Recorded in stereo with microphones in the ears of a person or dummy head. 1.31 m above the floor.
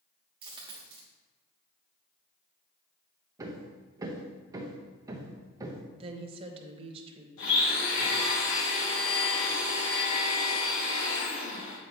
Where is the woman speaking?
30° right (ahead or behind), 1.1 m.